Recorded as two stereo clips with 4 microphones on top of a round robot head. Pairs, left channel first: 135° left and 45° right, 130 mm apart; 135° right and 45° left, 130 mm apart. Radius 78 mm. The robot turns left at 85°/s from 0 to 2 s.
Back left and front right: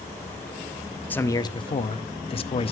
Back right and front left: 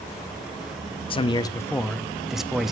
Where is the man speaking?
155° right, 0.7 m; by 2.7 s 130° left, 0.7 m.